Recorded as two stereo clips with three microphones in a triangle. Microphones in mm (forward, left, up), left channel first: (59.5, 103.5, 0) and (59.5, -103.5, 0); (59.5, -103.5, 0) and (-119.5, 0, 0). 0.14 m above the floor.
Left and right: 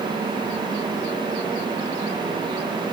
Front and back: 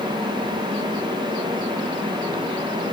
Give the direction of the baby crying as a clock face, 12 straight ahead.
No baby crying in this recording.